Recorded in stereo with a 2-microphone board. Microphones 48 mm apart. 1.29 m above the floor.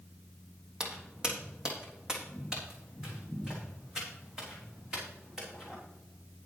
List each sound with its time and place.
0.8 s footsteps: 20° right (ahead or behind), 3 m; by 5.8 s 15° right (ahead or behind), 5.5 m